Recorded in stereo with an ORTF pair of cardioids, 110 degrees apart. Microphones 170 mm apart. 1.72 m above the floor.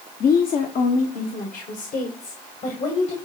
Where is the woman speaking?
60° left, 1.0 m; by 3.2 s 45° left, 2.5 m.